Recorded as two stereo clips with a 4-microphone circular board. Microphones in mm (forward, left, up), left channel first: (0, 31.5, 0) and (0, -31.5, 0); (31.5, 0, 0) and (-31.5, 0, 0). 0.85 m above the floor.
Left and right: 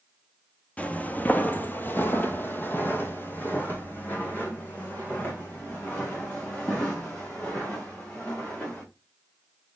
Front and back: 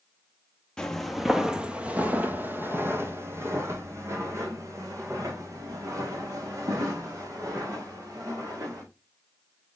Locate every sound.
0.8 s footsteps: 60° left, 0.9 m; by 8.8 s 150° left, 4.5 m